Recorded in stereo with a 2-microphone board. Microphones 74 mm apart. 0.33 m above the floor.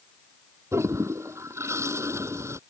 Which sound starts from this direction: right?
A toilet flushing, at 0.7 s.